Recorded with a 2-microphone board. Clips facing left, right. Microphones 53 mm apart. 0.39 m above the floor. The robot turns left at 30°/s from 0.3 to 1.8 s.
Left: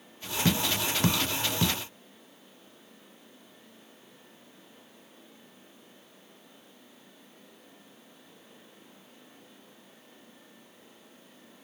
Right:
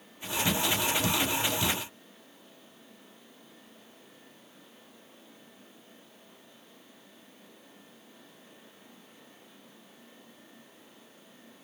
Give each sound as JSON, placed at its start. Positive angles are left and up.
{"t": 0.5, "sound": "tapping", "side_deg": 55, "distance_m": 0.5}